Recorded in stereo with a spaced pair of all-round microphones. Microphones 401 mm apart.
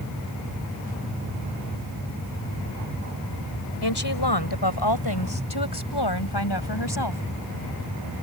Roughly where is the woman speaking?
Left.